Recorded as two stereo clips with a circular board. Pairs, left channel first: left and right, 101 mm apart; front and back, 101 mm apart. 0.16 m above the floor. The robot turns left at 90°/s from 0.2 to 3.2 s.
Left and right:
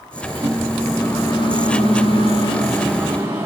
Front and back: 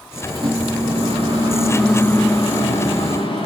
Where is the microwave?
130° right, 10 m; by 3.5 s 25° right, 10 m.